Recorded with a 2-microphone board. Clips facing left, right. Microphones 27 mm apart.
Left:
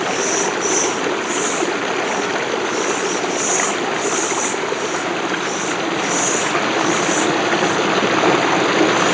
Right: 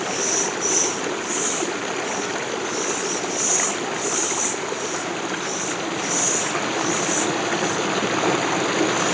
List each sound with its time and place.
0.0 s running water: 20° left (ahead or behind)